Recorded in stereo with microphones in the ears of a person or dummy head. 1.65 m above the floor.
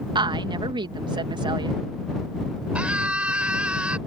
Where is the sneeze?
I don't hear a sneeze.